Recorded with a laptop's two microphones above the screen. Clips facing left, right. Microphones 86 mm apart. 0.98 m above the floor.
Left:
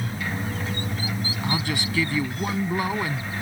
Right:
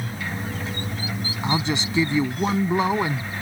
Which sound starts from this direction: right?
A man speaking, at 1.4 s.